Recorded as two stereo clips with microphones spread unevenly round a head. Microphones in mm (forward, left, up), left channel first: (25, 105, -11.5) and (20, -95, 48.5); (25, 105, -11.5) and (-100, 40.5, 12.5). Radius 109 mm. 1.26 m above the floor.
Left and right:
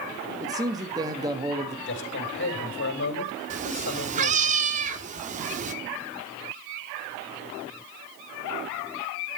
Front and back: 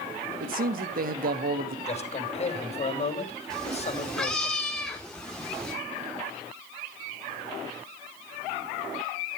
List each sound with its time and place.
0.4 s a man speaking: 165° right, 1.5 m
1.9 s a man speaking: 65° left, 3.5 m
3.5 s a cat meowing: 65° right, 1.2 m